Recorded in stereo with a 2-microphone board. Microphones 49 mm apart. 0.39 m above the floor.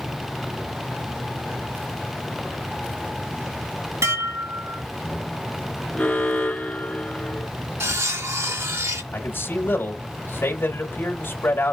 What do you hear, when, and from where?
4.0 s dishes clattering: 70° right (ahead or behind), 2 m
5.9 s an alarm: 20° left (ahead or behind), 1.6 m
7.8 s cutlery clinking: 70° right (ahead or behind), 1.5 m
9.1 s a man speaking: 45° left (ahead or behind), 1.9 m